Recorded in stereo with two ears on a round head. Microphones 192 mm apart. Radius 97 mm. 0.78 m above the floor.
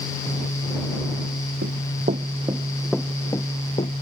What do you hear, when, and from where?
1.6 s running footsteps: 50° right (ahead or behind); by 4.0 s 30° left (ahead or behind)